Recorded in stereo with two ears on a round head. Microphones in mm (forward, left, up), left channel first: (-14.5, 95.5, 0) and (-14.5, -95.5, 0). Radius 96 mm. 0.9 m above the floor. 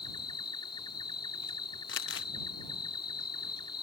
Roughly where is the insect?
Left.